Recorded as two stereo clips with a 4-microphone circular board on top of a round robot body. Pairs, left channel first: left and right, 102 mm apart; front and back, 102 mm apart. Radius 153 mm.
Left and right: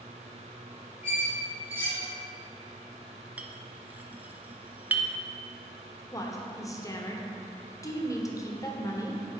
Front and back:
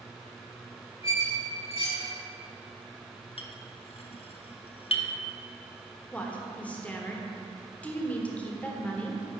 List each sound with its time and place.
1.0 s a squeak: 20° right, 1.9 m
3.4 s a clink: 15° right, 0.7 m
6.1 s a woman speaking: 70° left, 1.2 m